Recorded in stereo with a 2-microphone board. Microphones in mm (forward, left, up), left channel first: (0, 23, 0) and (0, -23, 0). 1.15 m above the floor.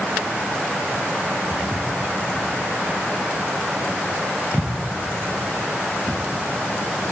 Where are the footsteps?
15° left (ahead or behind), 6 m; by 6.2 s 5° right (ahead or behind), 4 m.